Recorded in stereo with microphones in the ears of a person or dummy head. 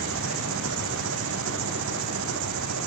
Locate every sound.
0.0 s an engine running: 75° right (ahead or behind)